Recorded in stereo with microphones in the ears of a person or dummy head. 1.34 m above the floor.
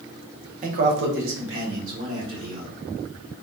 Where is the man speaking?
40° right (ahead or behind), 0.5 m; by 2.7 s 85° right, 2.5 m.